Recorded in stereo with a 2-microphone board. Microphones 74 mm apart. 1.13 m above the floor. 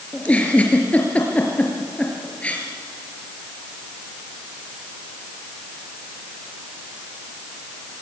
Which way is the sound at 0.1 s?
15° left (ahead or behind).